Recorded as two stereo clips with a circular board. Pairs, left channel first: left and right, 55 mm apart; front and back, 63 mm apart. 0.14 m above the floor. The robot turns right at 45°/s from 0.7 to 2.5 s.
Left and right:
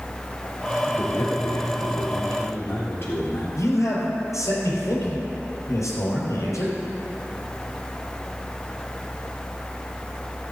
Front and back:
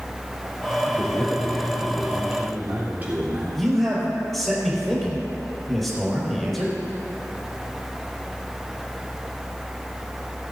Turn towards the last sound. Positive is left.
turn(degrees=90)